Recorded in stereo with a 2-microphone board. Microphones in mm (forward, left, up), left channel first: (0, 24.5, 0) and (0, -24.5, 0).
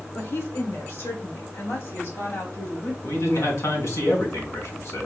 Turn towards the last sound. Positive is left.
turn(degrees=65)  # may be behind; listen again after turning